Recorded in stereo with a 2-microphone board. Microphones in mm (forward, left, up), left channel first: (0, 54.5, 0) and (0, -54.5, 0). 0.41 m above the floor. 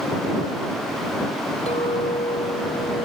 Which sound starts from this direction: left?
A clink, at 1.7 s.